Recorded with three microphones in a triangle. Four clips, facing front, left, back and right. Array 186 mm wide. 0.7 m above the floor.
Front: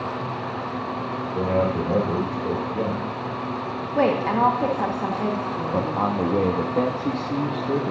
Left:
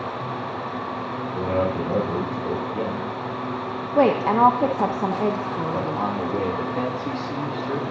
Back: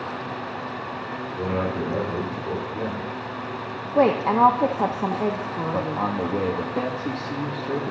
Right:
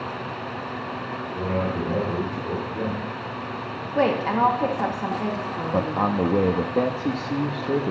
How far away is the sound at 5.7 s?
About 0.7 m.